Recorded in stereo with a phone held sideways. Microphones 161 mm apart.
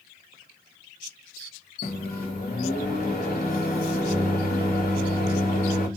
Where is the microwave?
55° left (ahead or behind), 1.0 m.